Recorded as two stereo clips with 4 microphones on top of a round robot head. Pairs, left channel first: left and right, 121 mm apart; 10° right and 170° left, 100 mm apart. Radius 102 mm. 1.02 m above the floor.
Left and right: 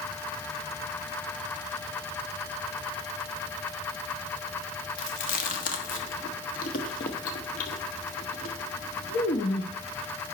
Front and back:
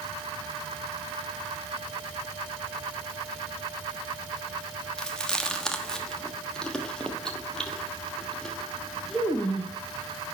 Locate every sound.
5.0 s chewing: 75° left, 1.2 m